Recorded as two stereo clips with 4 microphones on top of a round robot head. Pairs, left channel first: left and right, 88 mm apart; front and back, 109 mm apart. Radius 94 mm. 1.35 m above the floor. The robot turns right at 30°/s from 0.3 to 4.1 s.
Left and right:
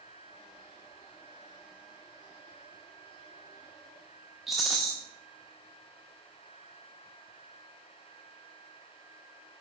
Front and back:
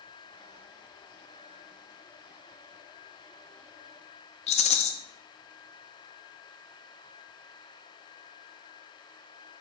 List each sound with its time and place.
4.5 s a rattle: straight ahead, 0.5 m